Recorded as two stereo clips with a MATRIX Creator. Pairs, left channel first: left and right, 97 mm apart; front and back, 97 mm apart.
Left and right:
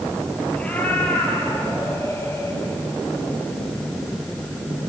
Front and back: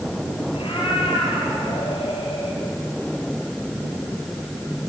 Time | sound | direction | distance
0.5 | a cat meowing | 15° left | 4.5 m